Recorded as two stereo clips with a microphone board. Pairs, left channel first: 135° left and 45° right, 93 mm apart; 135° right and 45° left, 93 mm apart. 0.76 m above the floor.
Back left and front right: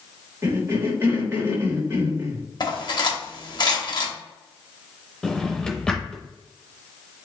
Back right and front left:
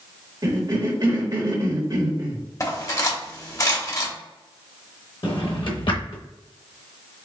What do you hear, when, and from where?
0.4 s a cough: 20° left, 1.1 m
2.6 s cutlery clinking: 175° left, 1.0 m
5.2 s a drawer: 145° right, 0.8 m